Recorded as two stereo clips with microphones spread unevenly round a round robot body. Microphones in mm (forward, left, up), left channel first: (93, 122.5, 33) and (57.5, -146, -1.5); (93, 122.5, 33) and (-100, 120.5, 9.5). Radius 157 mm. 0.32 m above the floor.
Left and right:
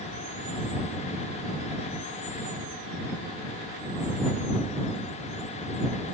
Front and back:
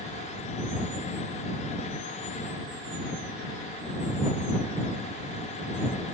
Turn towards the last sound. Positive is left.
No sound to turn to.